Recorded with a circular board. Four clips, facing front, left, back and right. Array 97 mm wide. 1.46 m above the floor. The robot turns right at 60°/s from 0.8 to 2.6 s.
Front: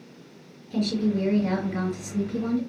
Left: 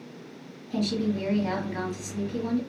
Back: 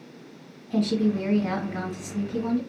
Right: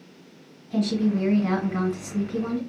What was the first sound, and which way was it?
A woman speaking, 165° right.